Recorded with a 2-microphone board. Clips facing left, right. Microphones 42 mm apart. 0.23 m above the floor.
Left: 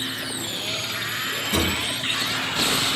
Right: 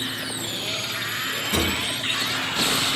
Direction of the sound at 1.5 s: 40° right (ahead or behind).